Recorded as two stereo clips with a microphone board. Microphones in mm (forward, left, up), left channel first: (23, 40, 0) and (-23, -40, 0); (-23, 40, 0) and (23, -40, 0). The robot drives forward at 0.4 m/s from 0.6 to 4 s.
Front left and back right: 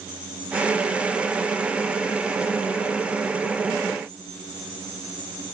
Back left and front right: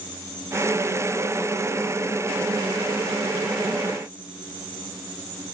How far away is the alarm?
I don't hear an alarm.